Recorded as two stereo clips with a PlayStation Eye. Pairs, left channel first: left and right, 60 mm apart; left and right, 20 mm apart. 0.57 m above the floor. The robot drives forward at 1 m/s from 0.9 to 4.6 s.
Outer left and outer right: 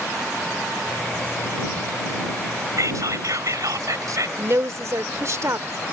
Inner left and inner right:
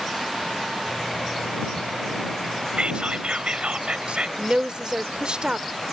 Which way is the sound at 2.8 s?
65° right (ahead or behind).